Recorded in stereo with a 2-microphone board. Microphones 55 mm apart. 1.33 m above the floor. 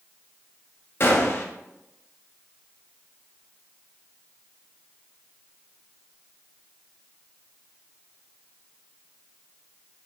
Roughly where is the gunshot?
Left.